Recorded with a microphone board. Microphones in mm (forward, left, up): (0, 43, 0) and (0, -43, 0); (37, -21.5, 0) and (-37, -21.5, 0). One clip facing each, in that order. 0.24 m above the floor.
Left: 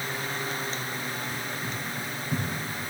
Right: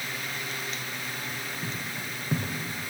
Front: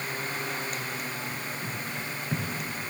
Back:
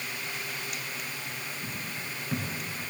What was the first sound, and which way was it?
Footsteps, 80° right.